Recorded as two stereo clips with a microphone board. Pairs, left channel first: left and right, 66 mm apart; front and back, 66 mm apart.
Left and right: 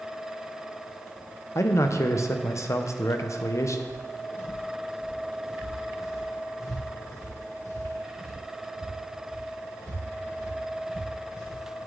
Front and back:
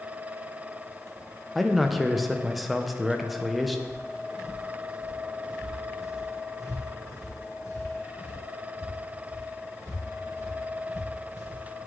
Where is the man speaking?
90° left, 0.7 m.